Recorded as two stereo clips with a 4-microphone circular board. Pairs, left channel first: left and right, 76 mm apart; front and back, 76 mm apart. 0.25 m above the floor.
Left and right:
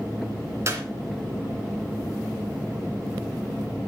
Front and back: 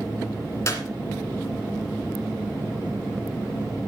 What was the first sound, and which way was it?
A clap, 45° right.